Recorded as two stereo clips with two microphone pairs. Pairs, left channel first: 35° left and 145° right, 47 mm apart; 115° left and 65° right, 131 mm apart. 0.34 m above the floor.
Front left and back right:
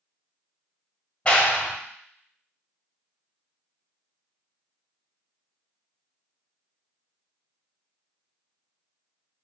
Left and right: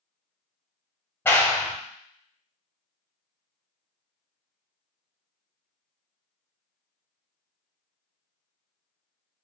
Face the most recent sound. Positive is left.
turn(degrees=65)